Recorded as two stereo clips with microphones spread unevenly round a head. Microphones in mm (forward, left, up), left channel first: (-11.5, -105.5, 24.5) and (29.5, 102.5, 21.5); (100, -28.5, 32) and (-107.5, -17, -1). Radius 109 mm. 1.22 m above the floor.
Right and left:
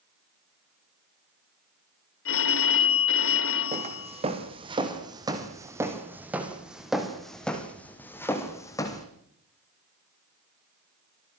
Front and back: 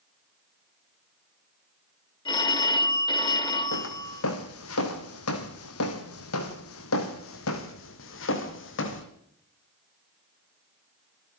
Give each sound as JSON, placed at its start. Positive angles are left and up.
{"t": 2.2, "sound": "a phone ringing", "azimuth_deg": -75, "distance_m": 4.0}
{"t": 3.7, "sound": "footsteps", "azimuth_deg": 20, "distance_m": 4.0}